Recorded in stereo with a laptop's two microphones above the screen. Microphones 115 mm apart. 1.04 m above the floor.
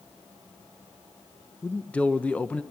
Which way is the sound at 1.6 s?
10° left (ahead or behind).